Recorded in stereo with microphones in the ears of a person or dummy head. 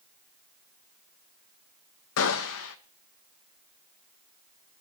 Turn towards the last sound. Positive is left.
turn(degrees=70)  # may be behind; listen again after turning